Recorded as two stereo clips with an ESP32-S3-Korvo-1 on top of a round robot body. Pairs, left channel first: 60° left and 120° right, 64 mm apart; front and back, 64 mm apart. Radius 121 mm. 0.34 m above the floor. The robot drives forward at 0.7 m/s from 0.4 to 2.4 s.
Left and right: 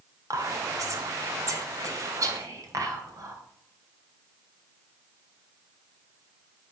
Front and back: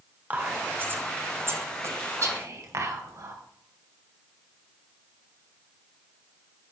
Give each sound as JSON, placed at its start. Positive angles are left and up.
{"t": 0.3, "sound": "whispering", "azimuth_deg": -120, "distance_m": 2.0}